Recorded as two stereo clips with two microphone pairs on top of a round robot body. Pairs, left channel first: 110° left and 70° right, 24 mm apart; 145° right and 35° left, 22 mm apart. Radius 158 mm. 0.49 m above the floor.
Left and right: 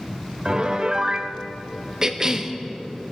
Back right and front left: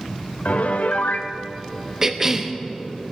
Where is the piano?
120° right, 0.7 m.